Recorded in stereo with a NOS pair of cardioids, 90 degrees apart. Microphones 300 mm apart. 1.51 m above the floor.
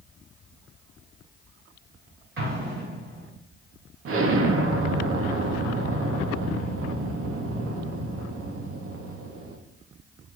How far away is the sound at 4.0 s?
About 0.8 m.